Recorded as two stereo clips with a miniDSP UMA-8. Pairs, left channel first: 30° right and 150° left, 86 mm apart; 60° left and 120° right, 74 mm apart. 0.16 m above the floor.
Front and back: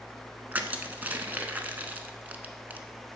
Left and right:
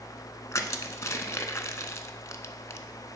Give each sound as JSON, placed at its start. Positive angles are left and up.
{"t": 0.5, "sound": "crushing", "azimuth_deg": 90, "distance_m": 0.6}